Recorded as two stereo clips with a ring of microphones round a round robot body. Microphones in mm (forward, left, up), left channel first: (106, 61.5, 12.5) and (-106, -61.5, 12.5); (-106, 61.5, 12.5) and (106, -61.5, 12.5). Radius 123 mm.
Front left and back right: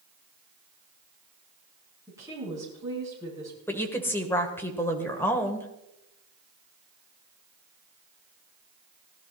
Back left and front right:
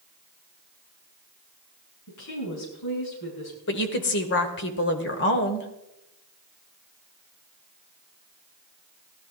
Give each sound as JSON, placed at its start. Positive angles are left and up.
{"t": 2.1, "sound": "a woman speaking", "azimuth_deg": 135, "distance_m": 5.0}
{"t": 3.7, "sound": "a woman speaking", "azimuth_deg": 110, "distance_m": 1.7}